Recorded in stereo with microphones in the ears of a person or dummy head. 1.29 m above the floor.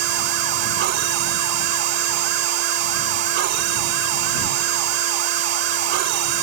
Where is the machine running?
65° right (ahead or behind).